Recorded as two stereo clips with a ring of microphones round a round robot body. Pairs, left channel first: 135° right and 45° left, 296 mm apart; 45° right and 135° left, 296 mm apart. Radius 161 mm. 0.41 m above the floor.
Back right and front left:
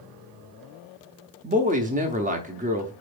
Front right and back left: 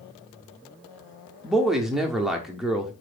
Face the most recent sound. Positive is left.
turn(degrees=50)